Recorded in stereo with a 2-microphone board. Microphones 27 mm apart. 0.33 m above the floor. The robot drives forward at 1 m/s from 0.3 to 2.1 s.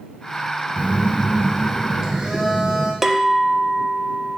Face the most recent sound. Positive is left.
turn(degrees=-10)  # may be behind; listen again after turning